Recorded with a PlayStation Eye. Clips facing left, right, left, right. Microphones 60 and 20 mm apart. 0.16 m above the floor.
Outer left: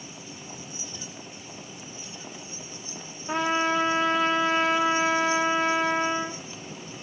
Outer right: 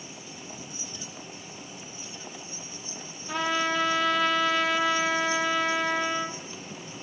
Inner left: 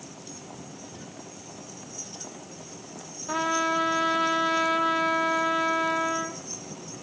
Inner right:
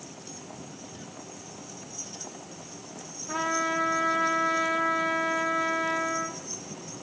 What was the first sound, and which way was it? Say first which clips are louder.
A trumpet: outer left 2 dB, inner left 2 dB; 35° left (ahead or behind).